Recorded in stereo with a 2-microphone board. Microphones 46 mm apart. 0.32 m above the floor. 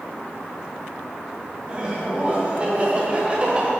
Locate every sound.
1.6 s laughter: 20° right (ahead or behind), 2.5 m; by 3.7 s 25° right (ahead or behind), 1.5 m